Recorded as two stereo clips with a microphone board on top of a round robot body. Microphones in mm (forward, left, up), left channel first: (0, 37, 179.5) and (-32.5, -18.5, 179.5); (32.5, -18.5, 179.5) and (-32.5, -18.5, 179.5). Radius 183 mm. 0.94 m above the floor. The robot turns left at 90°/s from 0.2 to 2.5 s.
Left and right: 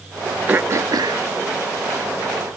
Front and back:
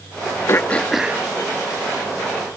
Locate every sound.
0.5 s throat clearing: 50° right; by 1.2 s 120° right